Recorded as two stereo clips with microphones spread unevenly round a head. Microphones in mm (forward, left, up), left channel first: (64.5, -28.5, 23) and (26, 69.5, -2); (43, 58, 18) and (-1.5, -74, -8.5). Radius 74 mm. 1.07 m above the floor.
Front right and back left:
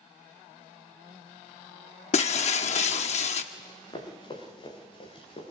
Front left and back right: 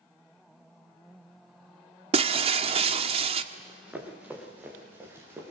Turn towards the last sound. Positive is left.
turn(degrees=-35)